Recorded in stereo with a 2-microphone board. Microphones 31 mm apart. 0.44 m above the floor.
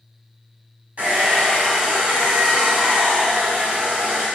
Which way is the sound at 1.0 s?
50° right (ahead or behind).